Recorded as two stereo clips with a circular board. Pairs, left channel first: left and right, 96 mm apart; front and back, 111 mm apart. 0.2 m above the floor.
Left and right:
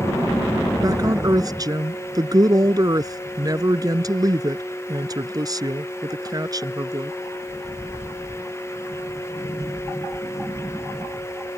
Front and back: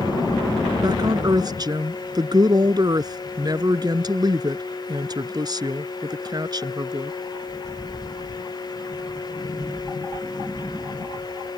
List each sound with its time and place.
0.8 s a woman speaking: 135° right